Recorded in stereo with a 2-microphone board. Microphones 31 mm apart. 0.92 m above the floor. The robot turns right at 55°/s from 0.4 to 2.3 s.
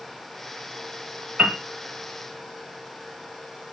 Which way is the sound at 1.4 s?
55° right (ahead or behind).